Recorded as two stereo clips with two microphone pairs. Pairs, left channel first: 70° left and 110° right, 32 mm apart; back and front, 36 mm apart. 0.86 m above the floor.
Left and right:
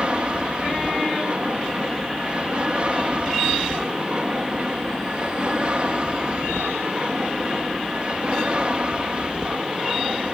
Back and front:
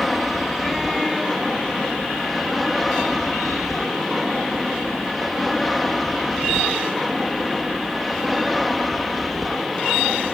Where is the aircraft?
90° right.